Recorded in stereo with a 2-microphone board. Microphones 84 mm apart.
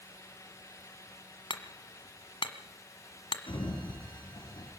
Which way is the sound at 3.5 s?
90° left.